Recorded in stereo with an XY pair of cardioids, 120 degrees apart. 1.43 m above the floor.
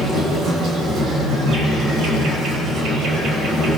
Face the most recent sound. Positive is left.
turn(degrees=-70)